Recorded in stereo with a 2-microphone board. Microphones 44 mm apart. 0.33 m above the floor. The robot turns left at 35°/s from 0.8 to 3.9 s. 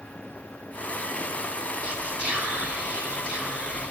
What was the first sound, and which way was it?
Whispering, 55° right.